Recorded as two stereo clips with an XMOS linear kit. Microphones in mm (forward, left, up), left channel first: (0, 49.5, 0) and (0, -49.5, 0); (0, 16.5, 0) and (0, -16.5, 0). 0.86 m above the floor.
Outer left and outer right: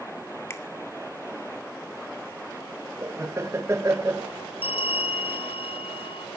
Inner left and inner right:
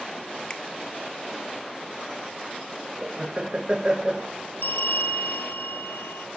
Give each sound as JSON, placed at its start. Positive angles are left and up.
{"t": 0.5, "sound": "a finger snap", "side_deg": 25, "distance_m": 1.7}
{"t": 3.0, "sound": "laughter", "side_deg": -25, "distance_m": 0.5}
{"t": 4.6, "sound": "a bell", "side_deg": 70, "distance_m": 2.5}